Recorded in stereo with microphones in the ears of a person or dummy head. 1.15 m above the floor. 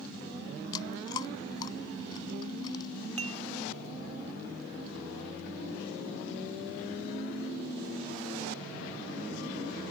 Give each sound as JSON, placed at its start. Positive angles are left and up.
{"t": 0.7, "sound": "chewing", "side_deg": 20}
{"t": 3.2, "sound": "dishes clattering", "side_deg": -25}